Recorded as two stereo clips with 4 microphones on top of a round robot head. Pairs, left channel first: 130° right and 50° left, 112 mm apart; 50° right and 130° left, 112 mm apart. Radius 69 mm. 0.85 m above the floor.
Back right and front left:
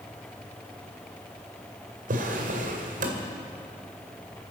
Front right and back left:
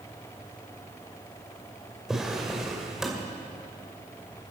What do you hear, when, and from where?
2.1 s a drawer: 45° left, 2 m